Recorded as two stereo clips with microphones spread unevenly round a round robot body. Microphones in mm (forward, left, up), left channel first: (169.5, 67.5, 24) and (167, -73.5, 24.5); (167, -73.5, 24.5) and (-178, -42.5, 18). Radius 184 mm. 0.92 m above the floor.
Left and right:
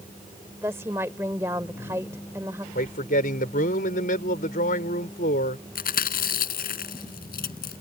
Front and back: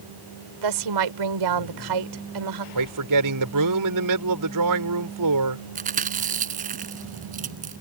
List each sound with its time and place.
0.6 s a woman speaking: 170° right
2.8 s a man speaking: 135° left
5.8 s chewing: 105° left